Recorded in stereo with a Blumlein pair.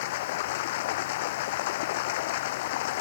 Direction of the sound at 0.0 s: 50° left.